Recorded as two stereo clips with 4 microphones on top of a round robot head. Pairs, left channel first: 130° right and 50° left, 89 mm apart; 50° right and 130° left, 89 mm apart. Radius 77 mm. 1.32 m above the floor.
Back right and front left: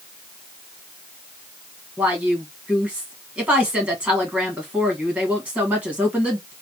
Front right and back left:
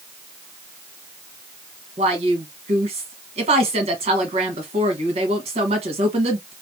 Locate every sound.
2.0 s a woman speaking: 125° left, 1.5 m